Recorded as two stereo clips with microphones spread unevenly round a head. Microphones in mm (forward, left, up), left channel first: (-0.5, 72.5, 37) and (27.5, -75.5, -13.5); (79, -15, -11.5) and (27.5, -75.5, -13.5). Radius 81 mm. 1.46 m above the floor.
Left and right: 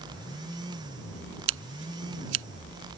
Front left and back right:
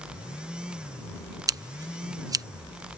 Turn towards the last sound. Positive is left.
turn(degrees=-85)